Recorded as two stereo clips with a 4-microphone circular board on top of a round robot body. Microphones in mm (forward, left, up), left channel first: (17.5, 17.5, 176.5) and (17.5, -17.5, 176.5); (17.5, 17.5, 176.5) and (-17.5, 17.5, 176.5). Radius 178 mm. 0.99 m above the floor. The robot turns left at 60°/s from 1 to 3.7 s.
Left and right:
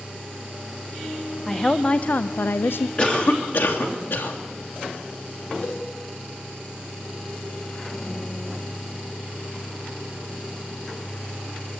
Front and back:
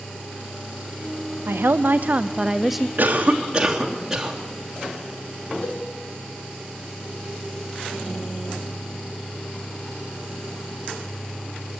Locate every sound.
1.5 s a woman speaking: 175° left, 0.6 m; by 2.9 s 90° left, 0.6 m
3.0 s a cough: 150° left, 3 m; by 4.4 s 105° left, 3 m
5.6 s a cowbell: 40° left, 5.5 m